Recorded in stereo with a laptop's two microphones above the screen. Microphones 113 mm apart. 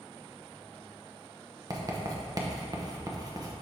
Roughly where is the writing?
Right.